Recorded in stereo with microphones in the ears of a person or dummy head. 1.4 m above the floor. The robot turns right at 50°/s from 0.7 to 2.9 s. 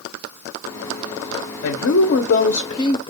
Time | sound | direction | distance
1.6 | a woman speaking | 90° left | 0.7 m